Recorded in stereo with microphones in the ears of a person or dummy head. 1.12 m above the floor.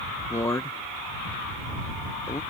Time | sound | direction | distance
0.3 | a man speaking | 15° left (ahead or behind) | ?